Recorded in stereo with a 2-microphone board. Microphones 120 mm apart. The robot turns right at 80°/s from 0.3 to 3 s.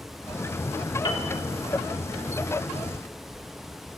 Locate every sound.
1.1 s a piano: 40° left (ahead or behind), 1.3 m; by 1.3 s 55° left (ahead or behind), 1.3 m